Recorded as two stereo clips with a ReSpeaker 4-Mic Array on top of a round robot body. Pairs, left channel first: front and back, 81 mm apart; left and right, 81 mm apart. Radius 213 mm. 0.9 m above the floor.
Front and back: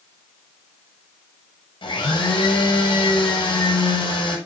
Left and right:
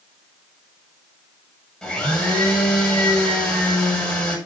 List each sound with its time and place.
1.8 s a blender: 10° left, 8 m